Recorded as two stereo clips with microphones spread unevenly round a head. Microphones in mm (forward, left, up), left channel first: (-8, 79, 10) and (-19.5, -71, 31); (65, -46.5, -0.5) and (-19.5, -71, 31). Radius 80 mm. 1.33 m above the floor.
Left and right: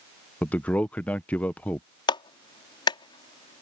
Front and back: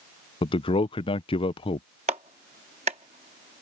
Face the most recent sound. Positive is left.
turn(degrees=145)